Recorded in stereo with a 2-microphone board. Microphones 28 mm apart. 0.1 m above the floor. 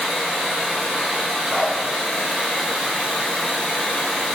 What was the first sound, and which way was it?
Running water, 20° left (ahead or behind).